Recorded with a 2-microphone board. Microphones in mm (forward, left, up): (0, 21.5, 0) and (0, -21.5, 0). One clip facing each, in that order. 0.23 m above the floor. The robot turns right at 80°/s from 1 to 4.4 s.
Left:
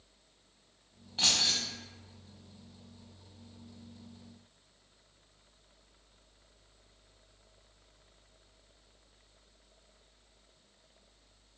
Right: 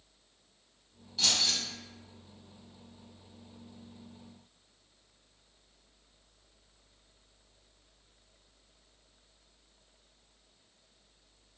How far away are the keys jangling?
About 0.8 m.